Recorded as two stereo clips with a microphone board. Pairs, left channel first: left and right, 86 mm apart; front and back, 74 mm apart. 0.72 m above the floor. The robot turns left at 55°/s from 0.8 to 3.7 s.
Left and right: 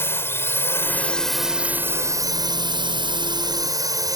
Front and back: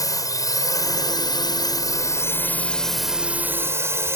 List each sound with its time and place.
0.0 s a drone: 30° left; by 4.2 s 130° right